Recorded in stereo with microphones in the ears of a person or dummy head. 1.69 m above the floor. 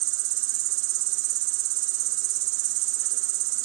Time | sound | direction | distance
0.0 | an insect | 65° right (ahead or behind) | ?